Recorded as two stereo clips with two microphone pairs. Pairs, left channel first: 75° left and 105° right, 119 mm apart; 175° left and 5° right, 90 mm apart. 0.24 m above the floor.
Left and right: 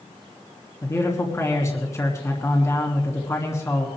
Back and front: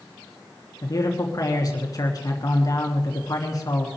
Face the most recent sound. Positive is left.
turn(degrees=140)